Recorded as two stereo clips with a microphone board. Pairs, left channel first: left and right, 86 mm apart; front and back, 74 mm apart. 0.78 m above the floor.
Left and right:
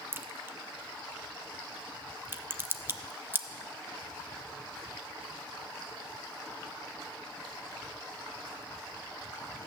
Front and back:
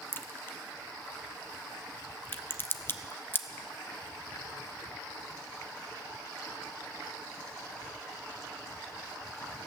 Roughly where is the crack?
Ahead right.